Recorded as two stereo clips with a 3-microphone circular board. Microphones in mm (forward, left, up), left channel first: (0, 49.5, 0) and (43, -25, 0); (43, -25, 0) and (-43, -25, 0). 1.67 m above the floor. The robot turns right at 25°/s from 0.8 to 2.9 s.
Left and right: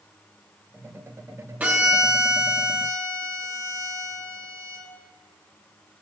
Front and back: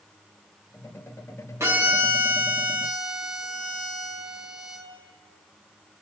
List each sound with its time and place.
1.6 s a violin: 130° right, 0.9 m; by 4.8 s 95° right, 0.9 m